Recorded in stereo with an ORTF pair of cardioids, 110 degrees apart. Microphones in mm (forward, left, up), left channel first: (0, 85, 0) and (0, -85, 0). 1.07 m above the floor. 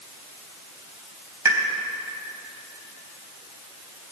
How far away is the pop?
About 3.5 m.